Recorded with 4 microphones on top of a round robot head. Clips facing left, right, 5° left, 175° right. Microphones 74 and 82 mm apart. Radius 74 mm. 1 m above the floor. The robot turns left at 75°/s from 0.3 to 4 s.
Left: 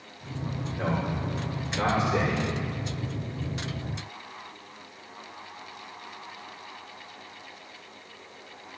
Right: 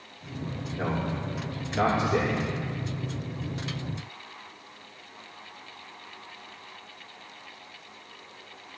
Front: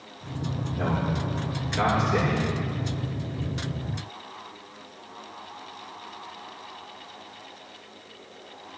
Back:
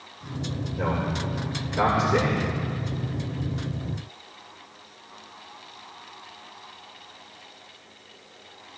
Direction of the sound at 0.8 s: 10° right.